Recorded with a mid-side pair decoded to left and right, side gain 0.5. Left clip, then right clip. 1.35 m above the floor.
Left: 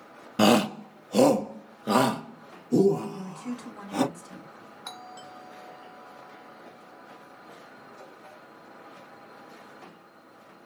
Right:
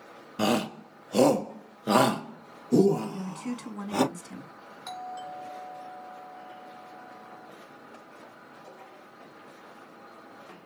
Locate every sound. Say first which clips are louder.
0.4 s a shout: left 6 dB; 40° left, 0.5 m; by 4.0 s 25° right, 2.5 m
3.0 s a woman speaking: right 1 dB; 35° right, 2.5 m
4.8 s a doorbell: right 5 dB; 15° left, 2.5 m